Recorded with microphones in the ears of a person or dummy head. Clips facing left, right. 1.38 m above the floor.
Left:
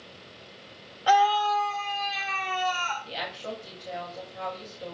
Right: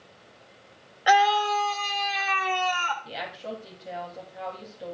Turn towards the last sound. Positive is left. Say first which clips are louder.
# even
turn(degrees=-5)  # may be behind; listen again after turning